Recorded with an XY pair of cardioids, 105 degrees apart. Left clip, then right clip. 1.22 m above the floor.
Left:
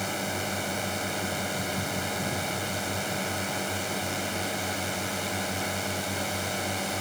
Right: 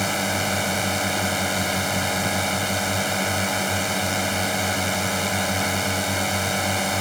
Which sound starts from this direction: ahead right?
A drone, at 0.0 s.